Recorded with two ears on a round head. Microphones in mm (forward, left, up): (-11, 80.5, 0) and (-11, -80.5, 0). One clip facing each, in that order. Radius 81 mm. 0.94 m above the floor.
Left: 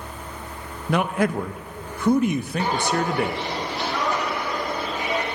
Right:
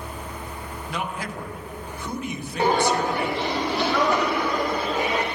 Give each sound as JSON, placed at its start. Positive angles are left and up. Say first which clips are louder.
{"t": 0.9, "sound": "a man speaking", "louder": "left 10 dB", "side_deg": 45, "distance_m": 0.5}
{"t": 2.6, "sound": "footsteps", "louder": "right 5 dB", "side_deg": -35, "distance_m": 2.5}